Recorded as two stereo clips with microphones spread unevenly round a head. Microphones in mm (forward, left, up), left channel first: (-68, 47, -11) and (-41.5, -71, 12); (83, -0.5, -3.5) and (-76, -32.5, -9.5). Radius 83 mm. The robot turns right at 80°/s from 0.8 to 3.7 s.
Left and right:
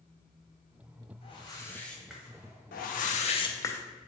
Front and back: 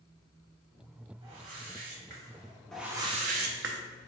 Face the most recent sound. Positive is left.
turn(degrees=175)